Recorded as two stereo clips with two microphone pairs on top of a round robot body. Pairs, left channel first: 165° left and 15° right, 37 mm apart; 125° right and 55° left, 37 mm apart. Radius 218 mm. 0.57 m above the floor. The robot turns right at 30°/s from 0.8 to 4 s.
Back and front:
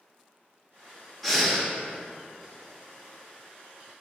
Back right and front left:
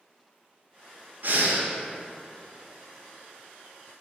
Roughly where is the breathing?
Left.